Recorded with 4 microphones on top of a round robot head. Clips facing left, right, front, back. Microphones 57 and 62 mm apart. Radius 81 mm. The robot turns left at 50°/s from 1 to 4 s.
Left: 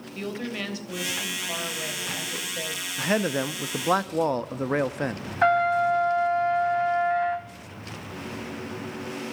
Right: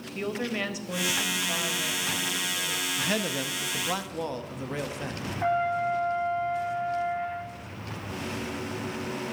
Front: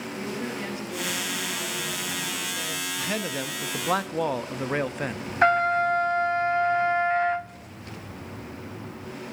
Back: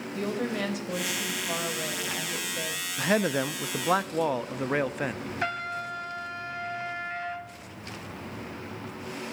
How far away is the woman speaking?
About 4 m.